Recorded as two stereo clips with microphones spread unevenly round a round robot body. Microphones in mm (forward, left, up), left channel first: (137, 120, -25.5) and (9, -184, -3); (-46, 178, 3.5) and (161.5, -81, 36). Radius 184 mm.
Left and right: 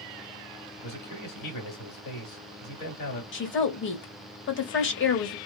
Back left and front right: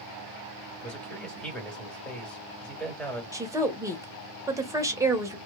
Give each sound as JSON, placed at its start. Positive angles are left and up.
{"t": 0.8, "sound": "a man speaking", "azimuth_deg": 45, "distance_m": 2.0}
{"t": 3.3, "sound": "a woman speaking", "azimuth_deg": 30, "distance_m": 1.5}